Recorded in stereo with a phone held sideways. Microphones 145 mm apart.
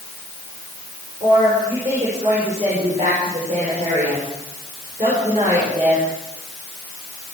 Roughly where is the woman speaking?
Right.